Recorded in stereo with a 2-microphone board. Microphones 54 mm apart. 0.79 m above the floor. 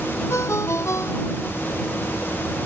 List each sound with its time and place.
0.3 s a ringtone: 60° left (ahead or behind)